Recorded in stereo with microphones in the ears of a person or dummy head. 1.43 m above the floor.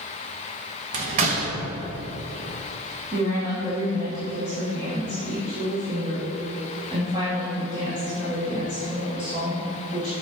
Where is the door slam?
35° right (ahead or behind), 0.7 m.